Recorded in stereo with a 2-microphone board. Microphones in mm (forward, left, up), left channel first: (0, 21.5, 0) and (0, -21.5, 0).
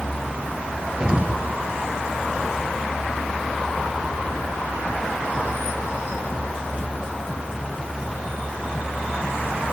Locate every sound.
1.0 s an explosion: 20° right (ahead or behind), 1.9 m